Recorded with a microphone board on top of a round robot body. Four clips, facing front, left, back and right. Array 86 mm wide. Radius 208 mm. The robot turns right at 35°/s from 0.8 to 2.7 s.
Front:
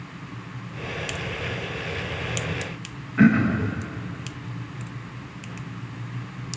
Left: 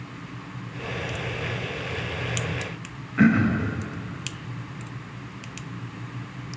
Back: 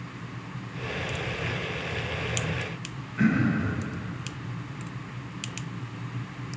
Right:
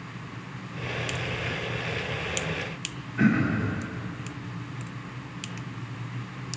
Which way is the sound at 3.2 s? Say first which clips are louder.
Left 4 dB, front 6 dB; 40° left.